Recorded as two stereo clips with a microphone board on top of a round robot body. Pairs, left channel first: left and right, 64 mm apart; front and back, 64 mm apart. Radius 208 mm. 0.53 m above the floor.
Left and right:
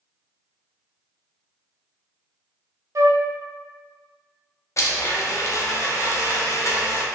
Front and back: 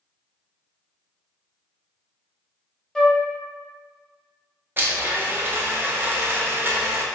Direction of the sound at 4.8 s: 125° left.